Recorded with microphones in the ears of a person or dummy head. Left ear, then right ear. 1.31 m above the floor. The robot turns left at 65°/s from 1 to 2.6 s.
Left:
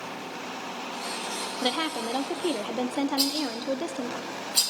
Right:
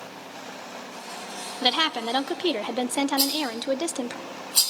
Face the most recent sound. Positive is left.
turn(degrees=-10)  # may be behind; listen again after turning